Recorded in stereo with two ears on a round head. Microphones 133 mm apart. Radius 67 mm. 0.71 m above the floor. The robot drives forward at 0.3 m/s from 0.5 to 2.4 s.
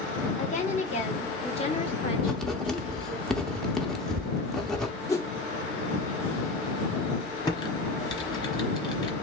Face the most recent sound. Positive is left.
turn(degrees=30)  # may be behind; listen again after turning